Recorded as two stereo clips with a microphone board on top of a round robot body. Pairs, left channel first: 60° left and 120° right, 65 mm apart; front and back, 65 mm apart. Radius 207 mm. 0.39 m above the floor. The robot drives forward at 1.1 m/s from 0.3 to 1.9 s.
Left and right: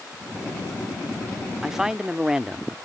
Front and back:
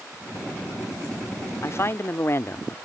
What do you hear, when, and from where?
1.6 s a woman speaking: 35° right; by 2.8 s 40° right